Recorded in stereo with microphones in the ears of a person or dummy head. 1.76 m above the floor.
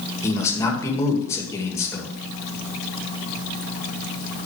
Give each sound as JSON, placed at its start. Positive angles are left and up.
{"t": 0.2, "sound": "a man speaking", "side_deg": 15, "distance_m": 2.5}